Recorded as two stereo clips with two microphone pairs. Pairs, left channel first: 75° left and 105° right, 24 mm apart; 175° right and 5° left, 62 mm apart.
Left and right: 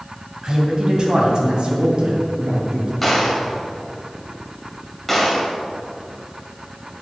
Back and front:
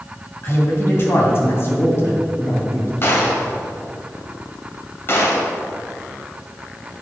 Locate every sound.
0.4 s a man speaking: 140° right, 2.5 m; by 2.9 s 135° right, 3.5 m
3.0 s a gunshot: 165° left, 2.0 m